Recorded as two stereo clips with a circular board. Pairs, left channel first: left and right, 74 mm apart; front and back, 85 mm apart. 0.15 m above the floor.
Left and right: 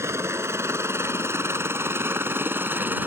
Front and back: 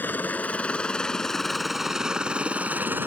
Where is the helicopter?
60° right; by 3.1 s 135° right.